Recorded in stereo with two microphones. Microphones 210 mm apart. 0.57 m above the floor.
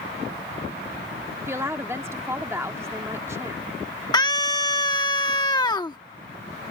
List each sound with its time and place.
1.5 s a woman speaking: 10° right (ahead or behind)
4.1 s a scream: 20° left (ahead or behind)